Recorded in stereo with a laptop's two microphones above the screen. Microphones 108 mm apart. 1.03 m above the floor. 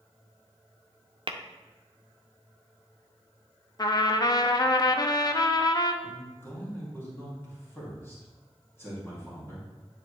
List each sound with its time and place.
1.3 s tapping: 50° right (ahead or behind), 0.5 m
3.8 s a trumpet: 40° left (ahead or behind), 0.5 m
6.0 s a man speaking: 20° left (ahead or behind), 1.8 m